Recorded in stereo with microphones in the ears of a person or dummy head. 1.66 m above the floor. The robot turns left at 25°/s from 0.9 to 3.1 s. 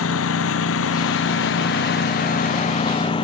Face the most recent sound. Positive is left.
turn(degrees=30)